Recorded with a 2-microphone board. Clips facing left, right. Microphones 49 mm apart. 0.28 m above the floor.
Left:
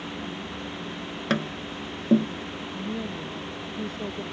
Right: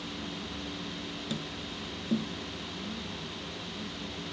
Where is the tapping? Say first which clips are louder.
Left 14 dB; 65° left (ahead or behind).